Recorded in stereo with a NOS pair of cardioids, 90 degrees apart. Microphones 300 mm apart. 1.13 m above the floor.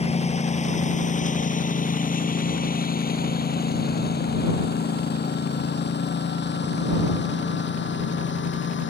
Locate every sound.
0.0 s a lawn mower: 20° left; by 8.9 s 40° left